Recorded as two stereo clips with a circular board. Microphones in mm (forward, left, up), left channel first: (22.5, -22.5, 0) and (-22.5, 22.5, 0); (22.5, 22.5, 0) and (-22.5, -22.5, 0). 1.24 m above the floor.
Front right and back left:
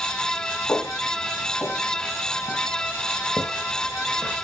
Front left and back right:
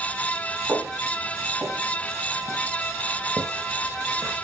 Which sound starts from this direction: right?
Footsteps, at 0.7 s.